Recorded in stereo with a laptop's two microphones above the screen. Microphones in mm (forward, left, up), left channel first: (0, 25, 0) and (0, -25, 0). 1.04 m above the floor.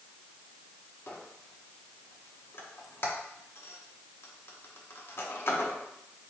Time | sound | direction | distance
1.1 | a squeak | 50° left (ahead or behind) | 0.7 m